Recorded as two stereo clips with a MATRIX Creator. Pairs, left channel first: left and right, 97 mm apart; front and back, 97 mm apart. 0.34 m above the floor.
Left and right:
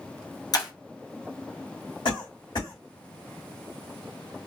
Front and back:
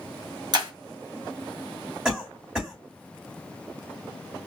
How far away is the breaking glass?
About 1.0 m.